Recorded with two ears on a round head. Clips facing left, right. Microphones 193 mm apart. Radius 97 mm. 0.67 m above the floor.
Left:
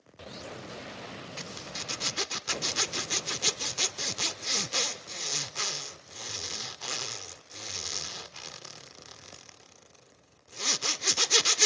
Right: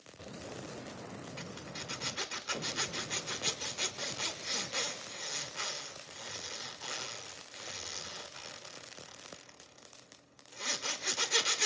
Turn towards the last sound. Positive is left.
turn(degrees=50)  # may be behind; listen again after turning